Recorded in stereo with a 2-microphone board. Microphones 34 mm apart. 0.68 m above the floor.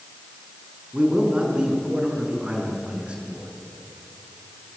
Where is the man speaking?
35° right (ahead or behind), 7 m.